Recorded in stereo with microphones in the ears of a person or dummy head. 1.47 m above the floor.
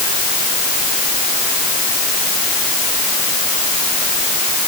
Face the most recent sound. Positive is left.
No sound to turn to.